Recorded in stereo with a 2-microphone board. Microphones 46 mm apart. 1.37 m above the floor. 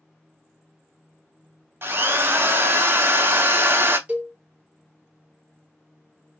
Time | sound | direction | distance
1.8 | a drill | 55° right (ahead or behind) | 0.6 m
4.1 | a cowbell | 30° right (ahead or behind) | 0.9 m